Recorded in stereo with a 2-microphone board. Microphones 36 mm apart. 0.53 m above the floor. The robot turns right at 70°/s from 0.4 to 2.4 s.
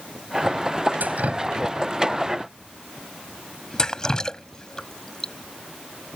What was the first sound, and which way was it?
Dripping, 70° right (ahead or behind).